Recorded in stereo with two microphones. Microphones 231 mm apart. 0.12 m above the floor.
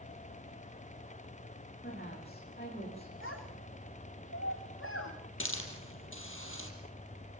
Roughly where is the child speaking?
Left.